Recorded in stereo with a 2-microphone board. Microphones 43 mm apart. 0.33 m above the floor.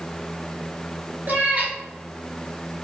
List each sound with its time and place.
1.3 s a cat meowing: 40° right (ahead or behind), 1.0 m